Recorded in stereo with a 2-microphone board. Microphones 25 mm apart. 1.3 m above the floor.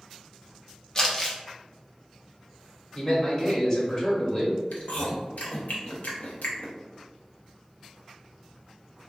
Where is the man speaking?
25° left (ahead or behind), 1.1 m.